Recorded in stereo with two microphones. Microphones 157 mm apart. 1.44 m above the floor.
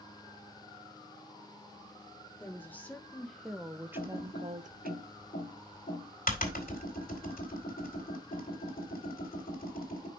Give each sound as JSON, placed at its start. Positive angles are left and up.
{"t": 2.4, "sound": "a woman speaking", "side_deg": 15, "distance_m": 1.7}
{"t": 4.0, "sound": "typing on a keyboard", "side_deg": 70, "distance_m": 2.5}